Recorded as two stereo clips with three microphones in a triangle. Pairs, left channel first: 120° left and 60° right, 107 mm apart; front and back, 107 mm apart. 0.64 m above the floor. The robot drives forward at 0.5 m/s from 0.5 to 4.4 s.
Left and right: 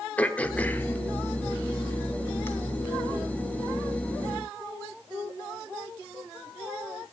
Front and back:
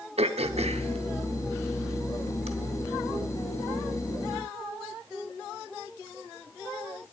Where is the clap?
No clap in this recording.